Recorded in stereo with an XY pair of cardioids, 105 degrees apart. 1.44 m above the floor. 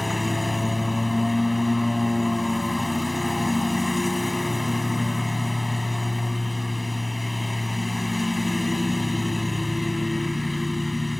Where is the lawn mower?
15° left.